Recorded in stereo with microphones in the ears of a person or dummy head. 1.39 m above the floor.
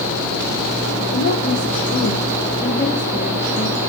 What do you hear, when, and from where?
1.1 s a woman speaking: 55° left (ahead or behind), 1.5 m; by 3.8 s centre (ahead or behind), 2.0 m